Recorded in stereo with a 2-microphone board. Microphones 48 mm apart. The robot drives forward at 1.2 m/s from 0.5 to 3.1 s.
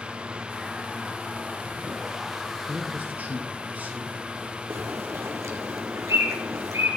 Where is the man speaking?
40° right (ahead or behind), 3 m; by 4.2 s 35° right (ahead or behind), 3 m.